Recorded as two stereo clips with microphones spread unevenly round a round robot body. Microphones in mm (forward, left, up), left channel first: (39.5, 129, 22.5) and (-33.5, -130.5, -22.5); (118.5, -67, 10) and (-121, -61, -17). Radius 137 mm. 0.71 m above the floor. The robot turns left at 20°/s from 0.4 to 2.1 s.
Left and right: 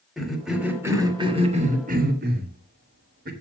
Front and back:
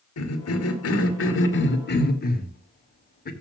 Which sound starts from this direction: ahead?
A cough, at 0.2 s.